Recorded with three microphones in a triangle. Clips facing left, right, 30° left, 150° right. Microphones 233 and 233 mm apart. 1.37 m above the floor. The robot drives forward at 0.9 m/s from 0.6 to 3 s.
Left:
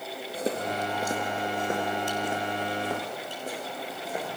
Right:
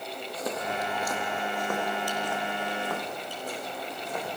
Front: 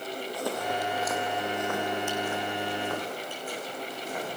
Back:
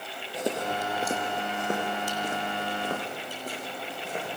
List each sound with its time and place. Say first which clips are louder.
0.3 s footsteps: left 3 dB, back 3 dB; 145° left, 2 m; by 4.3 s 160° left, 6.5 m